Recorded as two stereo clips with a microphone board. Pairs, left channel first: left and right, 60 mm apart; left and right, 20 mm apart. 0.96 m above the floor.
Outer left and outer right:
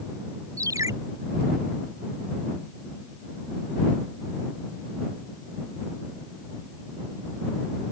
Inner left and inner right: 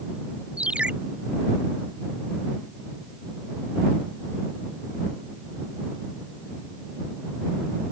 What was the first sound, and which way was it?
A ringtone, 70° right (ahead or behind).